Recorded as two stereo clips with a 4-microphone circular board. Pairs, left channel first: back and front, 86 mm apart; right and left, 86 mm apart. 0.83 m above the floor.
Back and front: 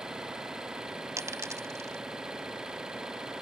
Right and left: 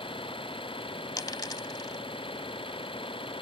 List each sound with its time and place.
0.0 s an engine running: 80° right
1.2 s a dropped coin: 50° right